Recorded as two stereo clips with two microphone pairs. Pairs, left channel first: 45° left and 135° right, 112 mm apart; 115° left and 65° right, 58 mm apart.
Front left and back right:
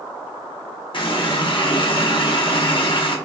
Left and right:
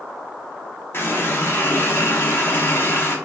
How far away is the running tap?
About 0.7 m.